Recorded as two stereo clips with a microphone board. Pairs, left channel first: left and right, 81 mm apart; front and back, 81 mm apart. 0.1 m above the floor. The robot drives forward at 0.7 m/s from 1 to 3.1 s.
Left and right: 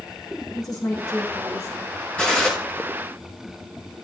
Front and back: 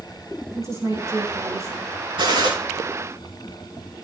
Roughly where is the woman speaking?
Behind left.